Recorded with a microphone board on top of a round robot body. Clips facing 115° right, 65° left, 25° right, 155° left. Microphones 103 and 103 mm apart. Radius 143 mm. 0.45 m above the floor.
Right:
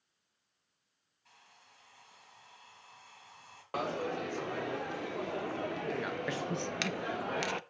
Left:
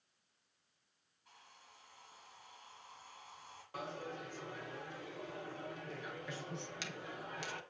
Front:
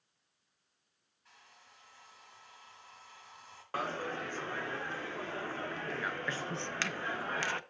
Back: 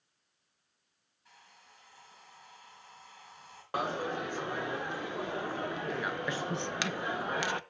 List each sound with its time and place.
1.2 s a hair dryer: 120° right, 6 m
3.7 s a dropped coin: 130° right, 0.5 m